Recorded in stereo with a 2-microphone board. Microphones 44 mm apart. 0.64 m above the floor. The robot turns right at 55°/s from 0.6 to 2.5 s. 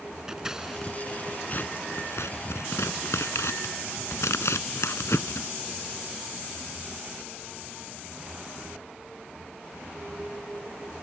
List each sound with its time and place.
0.3 s scissors: 10° right (ahead or behind); by 5.5 s 85° left